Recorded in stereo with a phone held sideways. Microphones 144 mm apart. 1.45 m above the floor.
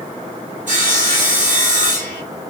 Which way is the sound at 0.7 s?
60° right (ahead or behind).